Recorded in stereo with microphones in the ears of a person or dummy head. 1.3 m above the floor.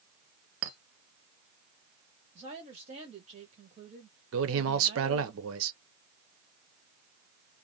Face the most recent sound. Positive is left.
turn(degrees=-65)  # may be behind; listen again after turning